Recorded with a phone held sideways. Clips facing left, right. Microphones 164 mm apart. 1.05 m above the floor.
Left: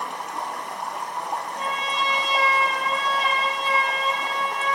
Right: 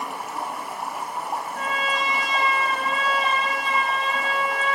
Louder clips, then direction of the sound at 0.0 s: Right 1 dB; 5° right (ahead or behind).